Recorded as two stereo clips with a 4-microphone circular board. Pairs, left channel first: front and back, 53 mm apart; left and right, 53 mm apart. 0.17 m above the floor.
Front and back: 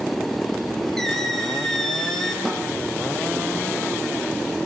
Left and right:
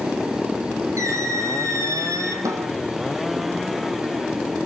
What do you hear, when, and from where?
1.0 s a squeak: 80° right, 3.5 m
2.5 s a snare drum: 90° right, 4.5 m